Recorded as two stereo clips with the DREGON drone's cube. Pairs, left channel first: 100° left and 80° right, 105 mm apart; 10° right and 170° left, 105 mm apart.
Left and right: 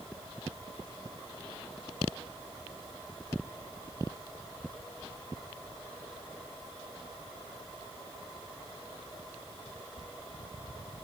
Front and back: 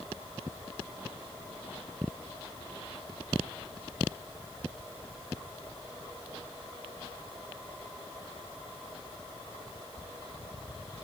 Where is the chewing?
I don't hear chewing.